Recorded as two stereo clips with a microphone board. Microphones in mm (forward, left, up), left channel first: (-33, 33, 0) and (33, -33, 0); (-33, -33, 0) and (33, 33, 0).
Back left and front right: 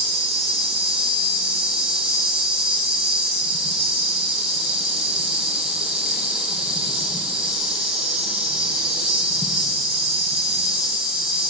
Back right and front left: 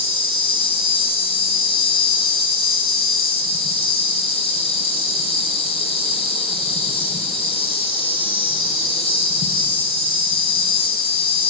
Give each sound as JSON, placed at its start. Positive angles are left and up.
{"t": 0.0, "sound": "an insect", "azimuth_deg": -135, "distance_m": 7.5}